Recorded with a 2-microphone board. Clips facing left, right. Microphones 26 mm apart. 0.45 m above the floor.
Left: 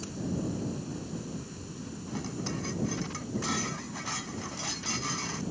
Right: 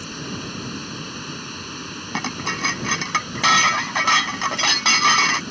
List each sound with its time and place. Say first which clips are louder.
0.0 s running water: right 4 dB; 65° right (ahead or behind)
2.1 s dishes clattering: right 11 dB; 65° right (ahead or behind)